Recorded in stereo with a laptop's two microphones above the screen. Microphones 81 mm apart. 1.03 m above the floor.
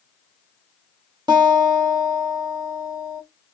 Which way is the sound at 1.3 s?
60° right (ahead or behind).